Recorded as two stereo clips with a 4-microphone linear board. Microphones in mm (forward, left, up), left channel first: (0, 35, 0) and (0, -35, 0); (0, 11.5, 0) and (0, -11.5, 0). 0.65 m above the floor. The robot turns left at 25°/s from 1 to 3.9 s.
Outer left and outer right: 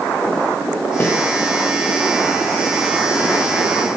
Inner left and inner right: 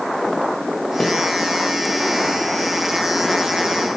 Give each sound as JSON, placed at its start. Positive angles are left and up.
{"t": 1.0, "sound": "a snare drum", "side_deg": 35, "distance_m": 1.8}